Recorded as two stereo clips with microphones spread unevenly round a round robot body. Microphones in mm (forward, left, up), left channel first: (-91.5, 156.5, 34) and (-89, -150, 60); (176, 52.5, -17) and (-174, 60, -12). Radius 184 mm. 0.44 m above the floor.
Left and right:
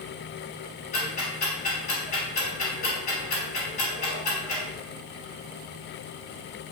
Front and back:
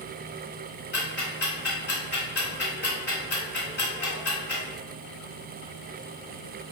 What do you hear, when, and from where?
0.9 s ticking: 40° left, 1.8 m